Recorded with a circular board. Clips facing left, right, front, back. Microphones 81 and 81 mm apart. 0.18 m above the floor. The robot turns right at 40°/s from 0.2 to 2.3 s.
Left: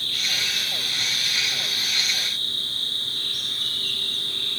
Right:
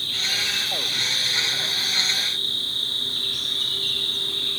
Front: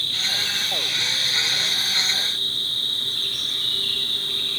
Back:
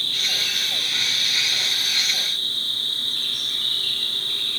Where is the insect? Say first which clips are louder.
Right 1 dB, even; 170° right, 4.5 m; by 4.6 s 85° right, 4.5 m.